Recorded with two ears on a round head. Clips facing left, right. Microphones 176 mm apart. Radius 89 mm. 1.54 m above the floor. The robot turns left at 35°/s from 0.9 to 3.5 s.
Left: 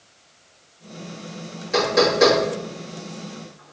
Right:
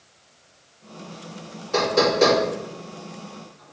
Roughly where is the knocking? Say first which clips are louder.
Left 1 dB; left.